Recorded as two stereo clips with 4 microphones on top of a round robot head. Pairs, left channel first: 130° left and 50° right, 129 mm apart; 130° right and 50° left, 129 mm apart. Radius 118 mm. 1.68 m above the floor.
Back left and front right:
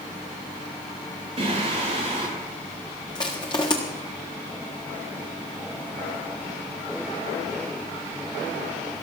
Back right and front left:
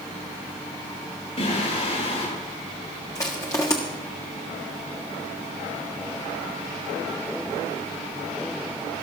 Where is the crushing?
175° left, 1.2 m.